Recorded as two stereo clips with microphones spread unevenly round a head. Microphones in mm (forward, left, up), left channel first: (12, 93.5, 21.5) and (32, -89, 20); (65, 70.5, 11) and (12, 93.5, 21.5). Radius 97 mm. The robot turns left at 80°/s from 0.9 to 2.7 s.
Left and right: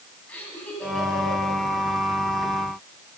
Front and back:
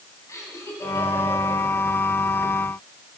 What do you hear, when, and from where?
0.3 s laughter: 15° left, 8.5 m; by 1.6 s 40° right, 8.5 m